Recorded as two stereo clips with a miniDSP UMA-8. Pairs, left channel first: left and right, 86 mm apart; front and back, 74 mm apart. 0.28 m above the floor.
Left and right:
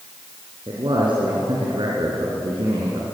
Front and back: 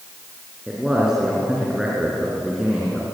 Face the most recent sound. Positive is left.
turn(degrees=-100)